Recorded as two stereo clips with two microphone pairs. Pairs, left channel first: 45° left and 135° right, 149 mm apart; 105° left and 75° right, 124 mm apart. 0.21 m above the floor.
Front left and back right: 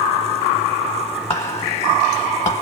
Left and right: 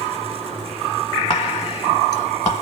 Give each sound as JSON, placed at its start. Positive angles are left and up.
{"t": 1.3, "sound": "whispering", "azimuth_deg": 70, "distance_m": 1.5}